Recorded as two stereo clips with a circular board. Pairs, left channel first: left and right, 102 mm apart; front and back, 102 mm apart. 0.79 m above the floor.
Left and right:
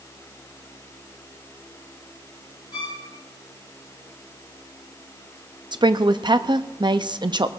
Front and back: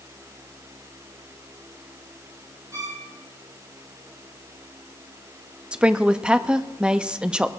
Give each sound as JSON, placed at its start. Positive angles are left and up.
{"t": 2.7, "sound": "a violin", "azimuth_deg": 125, "distance_m": 2.0}
{"t": 5.7, "sound": "a woman speaking", "azimuth_deg": -105, "distance_m": 0.6}